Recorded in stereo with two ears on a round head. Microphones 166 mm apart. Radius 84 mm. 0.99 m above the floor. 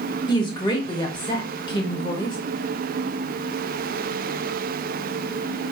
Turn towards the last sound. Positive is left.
turn(degrees=25)  # may be behind; listen again after turning